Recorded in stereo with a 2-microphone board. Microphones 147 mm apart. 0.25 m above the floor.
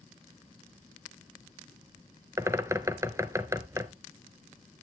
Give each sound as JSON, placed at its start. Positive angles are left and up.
{"t": 2.4, "sound": "a bird", "side_deg": -20, "distance_m": 0.7}